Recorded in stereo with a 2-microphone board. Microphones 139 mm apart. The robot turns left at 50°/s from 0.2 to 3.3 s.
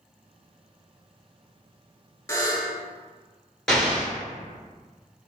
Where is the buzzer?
20° left (ahead or behind), 0.6 m; by 2.8 s 30° left (ahead or behind), 0.6 m.